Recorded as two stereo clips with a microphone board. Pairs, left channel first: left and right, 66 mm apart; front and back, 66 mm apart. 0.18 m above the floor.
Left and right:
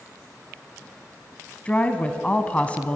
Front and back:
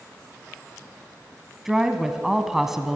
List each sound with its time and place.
1.6 s a woman speaking: 105° left, 1.2 m